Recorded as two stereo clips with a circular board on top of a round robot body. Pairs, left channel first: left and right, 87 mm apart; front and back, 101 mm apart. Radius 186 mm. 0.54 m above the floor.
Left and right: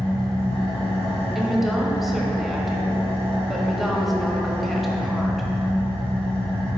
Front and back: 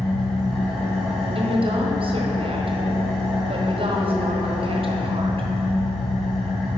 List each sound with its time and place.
0.0 s an engine running: 85° left, 2 m
1.4 s a woman speaking: straight behind, 1.4 m